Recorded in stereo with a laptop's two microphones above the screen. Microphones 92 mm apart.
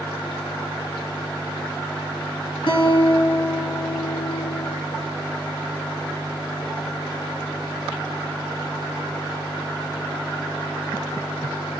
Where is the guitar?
70° left (ahead or behind), 3.5 m.